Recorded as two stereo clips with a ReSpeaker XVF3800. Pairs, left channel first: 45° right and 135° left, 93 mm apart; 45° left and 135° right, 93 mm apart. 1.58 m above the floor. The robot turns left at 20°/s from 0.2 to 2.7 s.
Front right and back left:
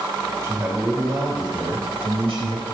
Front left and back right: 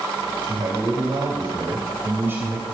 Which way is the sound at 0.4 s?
170° right.